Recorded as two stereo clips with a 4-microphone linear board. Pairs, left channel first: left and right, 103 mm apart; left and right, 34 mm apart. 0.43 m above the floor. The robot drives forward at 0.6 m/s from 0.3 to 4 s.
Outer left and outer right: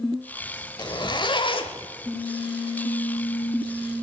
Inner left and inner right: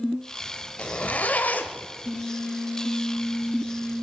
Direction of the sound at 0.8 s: 40° left (ahead or behind).